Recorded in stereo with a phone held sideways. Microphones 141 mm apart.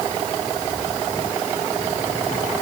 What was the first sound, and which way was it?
Only background noise.